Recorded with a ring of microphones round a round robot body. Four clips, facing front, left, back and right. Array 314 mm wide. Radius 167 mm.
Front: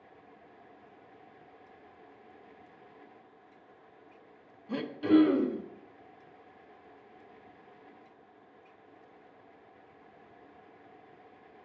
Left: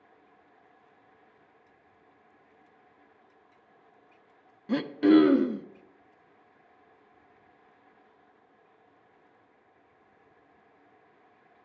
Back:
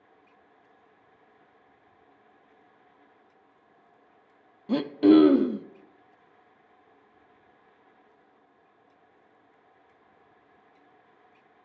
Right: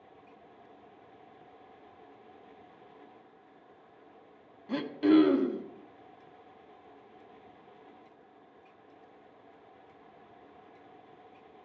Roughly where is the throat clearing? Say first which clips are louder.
Left 3 dB, back 7 dB; behind.